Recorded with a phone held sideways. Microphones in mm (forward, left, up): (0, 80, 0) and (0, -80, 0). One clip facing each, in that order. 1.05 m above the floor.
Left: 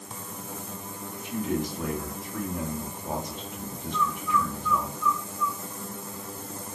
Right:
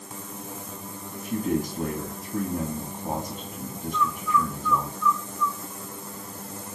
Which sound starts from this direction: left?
A bird, at 3.9 s.